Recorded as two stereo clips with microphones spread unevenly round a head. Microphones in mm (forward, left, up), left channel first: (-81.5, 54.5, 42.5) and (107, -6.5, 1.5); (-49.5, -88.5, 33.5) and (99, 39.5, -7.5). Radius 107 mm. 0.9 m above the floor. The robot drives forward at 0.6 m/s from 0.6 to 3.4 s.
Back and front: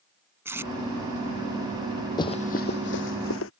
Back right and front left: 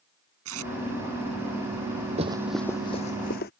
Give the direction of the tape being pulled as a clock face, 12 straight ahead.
10 o'clock.